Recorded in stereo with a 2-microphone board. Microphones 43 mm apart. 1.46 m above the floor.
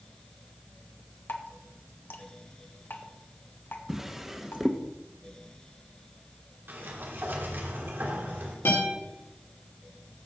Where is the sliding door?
55° right (ahead or behind), 2.5 m.